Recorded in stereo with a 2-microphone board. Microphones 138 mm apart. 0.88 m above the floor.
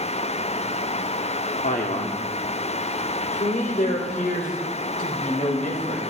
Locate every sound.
1.6 s a man speaking: 75° left (ahead or behind), 1.9 m